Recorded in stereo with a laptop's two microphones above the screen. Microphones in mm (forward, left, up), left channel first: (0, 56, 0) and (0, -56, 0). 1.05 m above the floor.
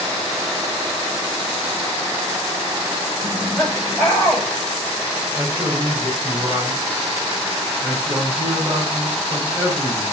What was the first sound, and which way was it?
Laughter, 10° right (ahead or behind).